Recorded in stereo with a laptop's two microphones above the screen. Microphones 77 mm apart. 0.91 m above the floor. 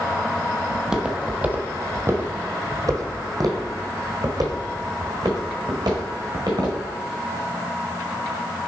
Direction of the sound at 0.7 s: 5° right (ahead or behind).